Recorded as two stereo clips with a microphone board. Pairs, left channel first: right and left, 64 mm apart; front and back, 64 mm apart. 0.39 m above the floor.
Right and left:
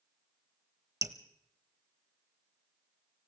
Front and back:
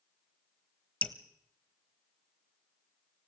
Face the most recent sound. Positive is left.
turn(degrees=65)